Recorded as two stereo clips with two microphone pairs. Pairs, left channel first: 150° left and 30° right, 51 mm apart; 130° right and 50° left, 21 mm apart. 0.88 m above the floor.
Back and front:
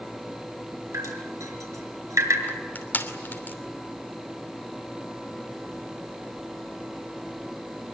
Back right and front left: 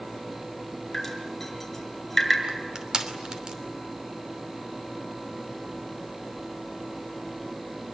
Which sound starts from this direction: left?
Crushing, at 2.5 s.